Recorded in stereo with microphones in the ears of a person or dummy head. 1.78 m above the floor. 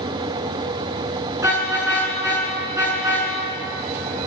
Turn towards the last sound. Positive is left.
turn(degrees=-15)  # may be behind; listen again after turning